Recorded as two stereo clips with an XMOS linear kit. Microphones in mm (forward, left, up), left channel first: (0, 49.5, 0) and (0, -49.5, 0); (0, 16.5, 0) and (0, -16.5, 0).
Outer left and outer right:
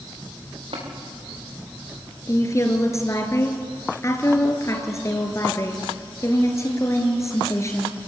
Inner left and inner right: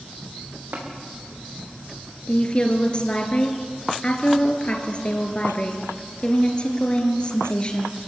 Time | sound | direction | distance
0.7 | tapping | 70° right (ahead or behind) | 6 m
2.3 | a woman speaking | 30° left (ahead or behind) | 3 m